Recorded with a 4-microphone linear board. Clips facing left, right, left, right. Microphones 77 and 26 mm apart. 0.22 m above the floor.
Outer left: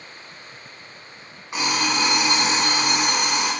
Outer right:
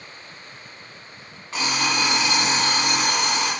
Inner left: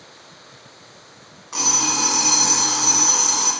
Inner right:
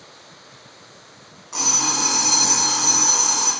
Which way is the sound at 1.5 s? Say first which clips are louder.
Outer left 1 dB, inner left 1 dB; 20° left (ahead or behind).